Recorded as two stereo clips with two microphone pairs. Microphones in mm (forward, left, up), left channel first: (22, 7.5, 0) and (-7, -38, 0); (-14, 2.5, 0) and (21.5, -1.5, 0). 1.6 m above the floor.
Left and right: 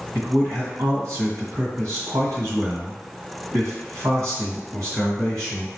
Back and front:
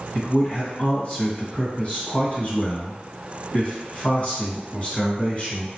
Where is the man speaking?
135° right, 1.4 m.